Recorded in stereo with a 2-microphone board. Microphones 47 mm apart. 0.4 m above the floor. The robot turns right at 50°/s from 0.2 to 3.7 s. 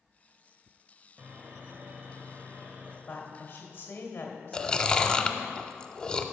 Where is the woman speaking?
60° left, 1.9 m; by 5.5 s 95° left, 1.9 m.